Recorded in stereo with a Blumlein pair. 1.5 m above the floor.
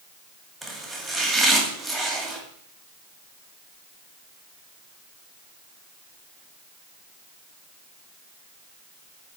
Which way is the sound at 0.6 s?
10° right.